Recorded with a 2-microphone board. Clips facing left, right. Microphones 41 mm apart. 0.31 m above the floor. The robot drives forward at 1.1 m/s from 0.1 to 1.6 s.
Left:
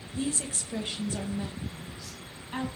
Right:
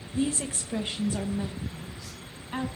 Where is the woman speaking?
25° right (ahead or behind), 0.9 m; by 2.7 s 10° right (ahead or behind), 1.7 m.